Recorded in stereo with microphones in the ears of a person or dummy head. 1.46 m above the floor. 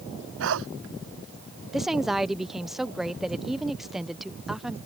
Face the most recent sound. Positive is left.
turn(degrees=-5)  # may be behind; listen again after turning